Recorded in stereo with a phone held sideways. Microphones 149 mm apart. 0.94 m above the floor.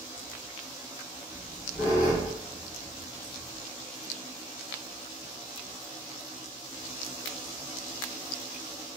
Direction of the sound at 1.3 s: 65° left (ahead or behind).